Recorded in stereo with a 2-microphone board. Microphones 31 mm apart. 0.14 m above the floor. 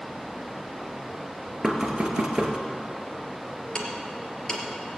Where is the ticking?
25° left (ahead or behind), 3 m.